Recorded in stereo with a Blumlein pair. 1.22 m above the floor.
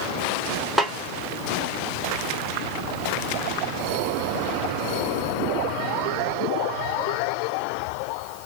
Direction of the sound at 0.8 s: 5° right.